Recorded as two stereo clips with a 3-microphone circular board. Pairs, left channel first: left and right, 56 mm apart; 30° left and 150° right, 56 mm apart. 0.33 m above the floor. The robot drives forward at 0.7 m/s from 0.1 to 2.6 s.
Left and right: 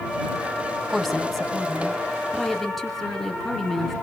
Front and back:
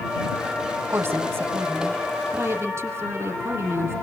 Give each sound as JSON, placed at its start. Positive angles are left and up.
{"t": 0.9, "sound": "a woman speaking", "azimuth_deg": 175, "distance_m": 2.5}